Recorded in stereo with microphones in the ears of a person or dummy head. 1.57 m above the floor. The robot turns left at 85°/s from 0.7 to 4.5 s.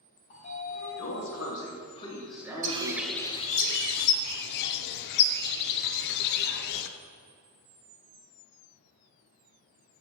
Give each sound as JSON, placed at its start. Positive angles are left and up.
{"t": 0.3, "sound": "a sliding door", "azimuth_deg": 140, "distance_m": 2.0}
{"t": 2.6, "sound": "a bird", "azimuth_deg": -145, "distance_m": 0.8}